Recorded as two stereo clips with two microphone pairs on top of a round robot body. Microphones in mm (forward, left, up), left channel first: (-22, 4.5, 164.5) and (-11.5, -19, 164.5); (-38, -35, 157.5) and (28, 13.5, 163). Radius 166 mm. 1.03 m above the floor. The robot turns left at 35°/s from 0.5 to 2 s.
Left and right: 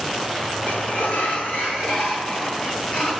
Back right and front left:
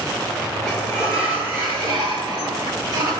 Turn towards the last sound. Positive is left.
turn(degrees=80)